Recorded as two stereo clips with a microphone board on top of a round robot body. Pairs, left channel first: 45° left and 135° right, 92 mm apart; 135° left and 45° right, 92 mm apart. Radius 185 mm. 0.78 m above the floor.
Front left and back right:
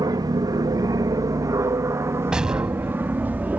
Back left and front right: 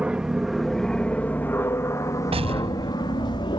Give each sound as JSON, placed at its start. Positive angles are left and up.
{"t": 0.0, "sound": "an aircraft", "azimuth_deg": -120}
{"t": 2.3, "sound": "an explosion", "azimuth_deg": -55}